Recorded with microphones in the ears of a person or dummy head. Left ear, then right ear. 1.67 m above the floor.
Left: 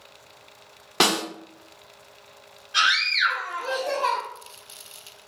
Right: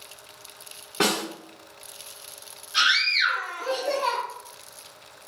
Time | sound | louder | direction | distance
1.0 | a snare drum | left 3 dB | 60° left (ahead or behind) | 0.9 m
2.7 | a scream | even | 25° left (ahead or behind) | 0.8 m